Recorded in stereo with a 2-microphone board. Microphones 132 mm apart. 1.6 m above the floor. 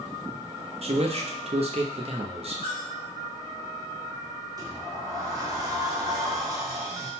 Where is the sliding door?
30° right (ahead or behind), 0.8 m.